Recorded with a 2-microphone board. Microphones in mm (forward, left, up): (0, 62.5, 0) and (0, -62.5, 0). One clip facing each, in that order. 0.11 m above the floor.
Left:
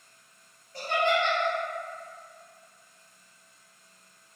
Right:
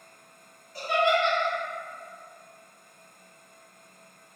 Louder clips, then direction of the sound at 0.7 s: Right 2 dB; 30° left (ahead or behind).